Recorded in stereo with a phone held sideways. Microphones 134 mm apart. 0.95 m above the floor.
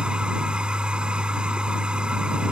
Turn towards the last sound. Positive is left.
turn(degrees=-5)  # may be behind; listen again after turning